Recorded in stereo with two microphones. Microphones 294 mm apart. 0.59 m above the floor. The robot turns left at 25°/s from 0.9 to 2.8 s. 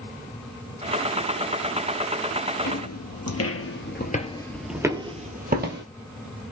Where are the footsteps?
65° left (ahead or behind), 1.3 m; by 5.8 s 35° right (ahead or behind), 1.1 m.